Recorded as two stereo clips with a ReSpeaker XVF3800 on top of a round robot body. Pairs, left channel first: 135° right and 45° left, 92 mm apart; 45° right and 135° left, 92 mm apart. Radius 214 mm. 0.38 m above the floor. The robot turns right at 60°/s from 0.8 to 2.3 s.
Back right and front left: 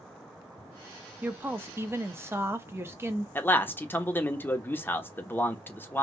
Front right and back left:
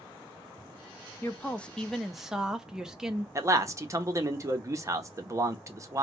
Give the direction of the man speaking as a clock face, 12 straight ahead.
6 o'clock.